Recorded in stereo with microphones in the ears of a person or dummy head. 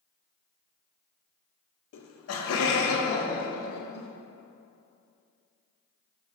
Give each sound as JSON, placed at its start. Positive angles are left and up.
{"t": 1.9, "sound": "laughter", "side_deg": 60, "distance_m": 0.5}